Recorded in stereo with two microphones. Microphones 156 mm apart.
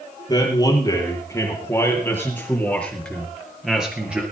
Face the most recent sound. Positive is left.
turn(degrees=-10)  # may be behind; listen again after turning